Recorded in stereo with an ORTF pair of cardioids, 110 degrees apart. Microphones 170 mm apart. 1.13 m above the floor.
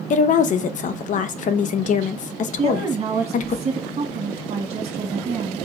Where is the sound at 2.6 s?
45° right, 1.8 m.